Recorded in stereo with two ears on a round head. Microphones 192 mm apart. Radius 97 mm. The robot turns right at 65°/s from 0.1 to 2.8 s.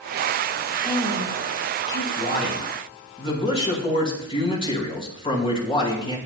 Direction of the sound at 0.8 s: 5° right.